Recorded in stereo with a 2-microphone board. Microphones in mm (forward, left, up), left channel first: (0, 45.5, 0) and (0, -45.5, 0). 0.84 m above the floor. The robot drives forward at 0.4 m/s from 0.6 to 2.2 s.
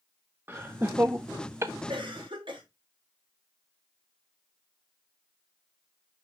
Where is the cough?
75° right (ahead or behind), 2.5 m.